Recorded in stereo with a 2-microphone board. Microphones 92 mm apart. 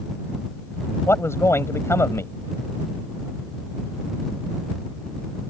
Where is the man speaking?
30° left (ahead or behind).